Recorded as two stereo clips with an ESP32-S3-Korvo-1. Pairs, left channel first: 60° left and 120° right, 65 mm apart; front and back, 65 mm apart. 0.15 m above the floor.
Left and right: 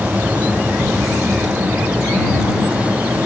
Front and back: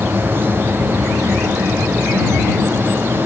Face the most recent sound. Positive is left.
No sound to turn to.